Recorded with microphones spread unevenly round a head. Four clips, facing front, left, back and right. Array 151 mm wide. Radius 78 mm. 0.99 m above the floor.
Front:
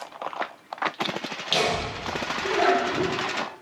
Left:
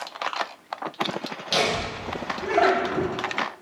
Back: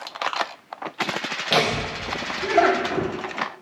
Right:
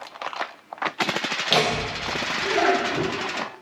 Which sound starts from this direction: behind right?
Laughter, at 1.5 s.